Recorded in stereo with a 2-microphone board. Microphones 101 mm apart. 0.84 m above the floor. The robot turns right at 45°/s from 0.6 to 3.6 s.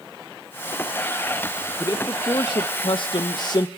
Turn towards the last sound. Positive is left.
turn(degrees=115)